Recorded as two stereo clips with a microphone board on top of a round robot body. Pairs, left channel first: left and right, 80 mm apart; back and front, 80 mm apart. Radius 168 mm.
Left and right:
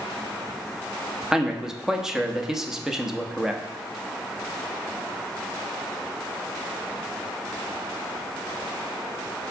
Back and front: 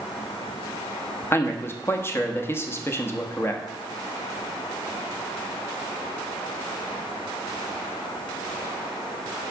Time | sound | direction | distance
1.3 | a man speaking | 170° right | 1.5 m